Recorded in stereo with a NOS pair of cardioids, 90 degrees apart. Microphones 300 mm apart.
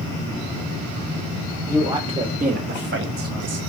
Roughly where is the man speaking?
Ahead.